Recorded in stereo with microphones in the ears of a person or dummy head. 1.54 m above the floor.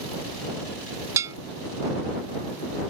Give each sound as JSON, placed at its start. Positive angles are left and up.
{"t": 1.2, "sound": "a bell", "side_deg": -15}